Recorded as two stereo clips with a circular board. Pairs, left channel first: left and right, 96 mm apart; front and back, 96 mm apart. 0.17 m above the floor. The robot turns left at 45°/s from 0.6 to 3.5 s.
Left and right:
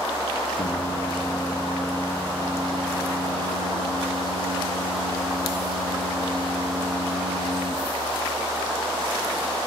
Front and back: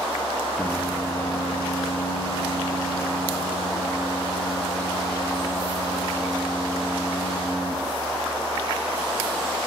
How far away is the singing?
About 6.5 m.